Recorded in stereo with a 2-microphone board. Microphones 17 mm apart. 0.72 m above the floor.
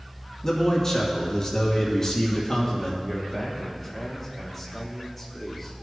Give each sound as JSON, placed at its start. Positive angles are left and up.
{"t": 0.4, "sound": "a man speaking", "side_deg": 20, "distance_m": 1.2}
{"t": 3.0, "sound": "a man speaking", "side_deg": -5, "distance_m": 2.5}